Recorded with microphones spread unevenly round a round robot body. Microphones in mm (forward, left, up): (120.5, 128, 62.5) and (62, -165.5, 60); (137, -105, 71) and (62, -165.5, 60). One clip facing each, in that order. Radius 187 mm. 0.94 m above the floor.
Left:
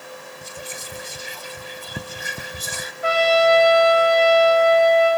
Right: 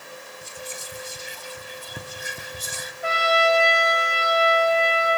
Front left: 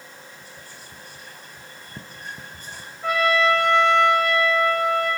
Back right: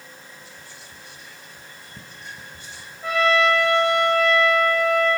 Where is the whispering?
90° left, 0.5 m.